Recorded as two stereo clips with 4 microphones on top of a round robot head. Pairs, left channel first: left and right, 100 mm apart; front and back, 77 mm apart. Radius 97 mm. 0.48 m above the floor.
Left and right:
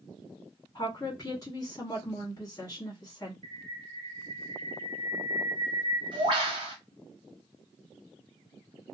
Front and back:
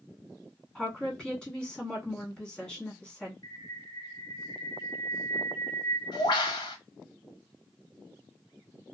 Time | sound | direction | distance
0.8 | a woman speaking | 85° left | 1.4 m
3.4 | a bird | 45° right | 0.7 m